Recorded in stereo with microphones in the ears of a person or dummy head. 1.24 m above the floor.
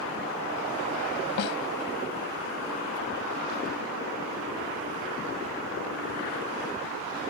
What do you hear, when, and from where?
1.4 s a snare drum: 65° left (ahead or behind)